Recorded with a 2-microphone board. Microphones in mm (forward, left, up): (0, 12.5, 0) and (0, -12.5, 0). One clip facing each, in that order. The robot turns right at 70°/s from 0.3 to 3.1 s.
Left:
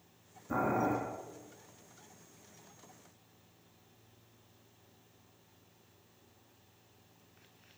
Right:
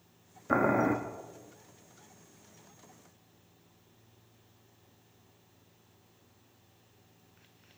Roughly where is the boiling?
Right.